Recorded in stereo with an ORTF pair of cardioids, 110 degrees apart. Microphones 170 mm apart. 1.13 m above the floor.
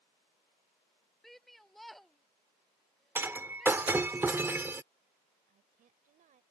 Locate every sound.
1.2 s a shout: straight ahead
3.1 s breaking glass: 15° right
5.5 s a woman speaking: 55° right